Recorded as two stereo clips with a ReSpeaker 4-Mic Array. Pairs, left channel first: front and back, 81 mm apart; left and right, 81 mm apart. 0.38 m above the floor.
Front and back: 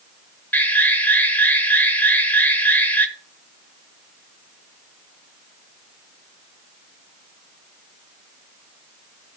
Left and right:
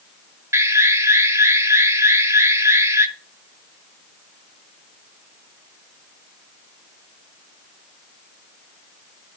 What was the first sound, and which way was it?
An alarm, 55° right.